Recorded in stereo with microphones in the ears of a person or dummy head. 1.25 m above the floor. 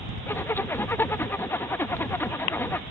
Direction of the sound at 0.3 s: 15° left (ahead or behind).